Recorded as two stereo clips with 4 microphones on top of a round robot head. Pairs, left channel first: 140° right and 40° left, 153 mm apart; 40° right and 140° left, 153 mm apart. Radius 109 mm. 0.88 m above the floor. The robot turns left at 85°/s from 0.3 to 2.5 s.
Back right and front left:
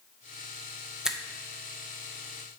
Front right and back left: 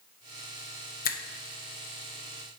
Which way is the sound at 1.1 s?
45° right.